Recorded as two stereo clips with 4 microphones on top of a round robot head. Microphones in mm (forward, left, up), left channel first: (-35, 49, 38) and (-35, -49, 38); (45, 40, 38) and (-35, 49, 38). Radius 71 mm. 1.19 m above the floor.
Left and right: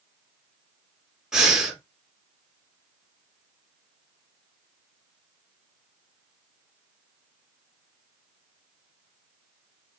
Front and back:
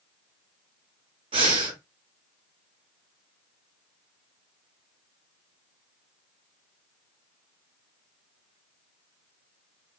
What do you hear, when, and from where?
1.3 s breathing: 175° right, 0.9 m